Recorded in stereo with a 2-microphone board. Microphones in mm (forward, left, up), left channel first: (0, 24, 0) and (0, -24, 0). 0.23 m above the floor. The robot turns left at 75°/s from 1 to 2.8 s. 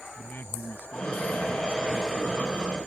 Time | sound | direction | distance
0.2 | a man speaking | 85° left | ?